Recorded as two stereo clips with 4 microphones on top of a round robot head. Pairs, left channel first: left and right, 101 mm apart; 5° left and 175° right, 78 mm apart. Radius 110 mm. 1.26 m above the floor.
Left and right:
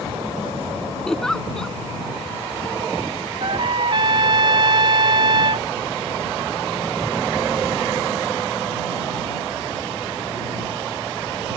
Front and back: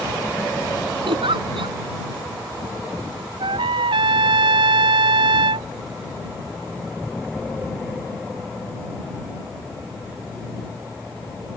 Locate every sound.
1.1 s a giggle: 175° left
3.4 s a trumpet: 145° right